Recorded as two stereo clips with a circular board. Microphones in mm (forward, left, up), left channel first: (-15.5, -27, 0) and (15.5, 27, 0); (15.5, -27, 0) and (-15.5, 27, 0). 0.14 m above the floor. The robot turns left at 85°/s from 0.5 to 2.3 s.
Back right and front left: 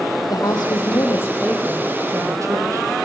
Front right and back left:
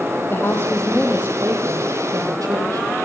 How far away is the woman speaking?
About 4.5 m.